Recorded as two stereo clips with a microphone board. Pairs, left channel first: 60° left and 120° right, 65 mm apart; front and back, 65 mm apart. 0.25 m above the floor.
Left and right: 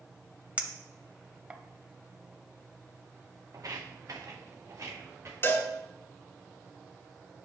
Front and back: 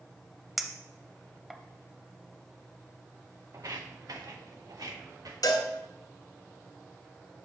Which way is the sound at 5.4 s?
10° left.